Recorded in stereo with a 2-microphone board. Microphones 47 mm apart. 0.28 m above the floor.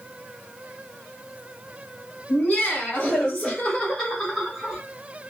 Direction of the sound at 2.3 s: 35° left (ahead or behind).